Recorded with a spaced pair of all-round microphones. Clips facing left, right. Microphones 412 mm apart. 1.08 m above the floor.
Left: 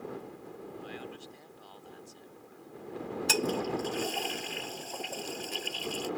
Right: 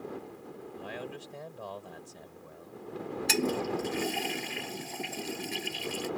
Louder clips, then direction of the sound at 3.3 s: Right 1 dB; 35° right (ahead or behind).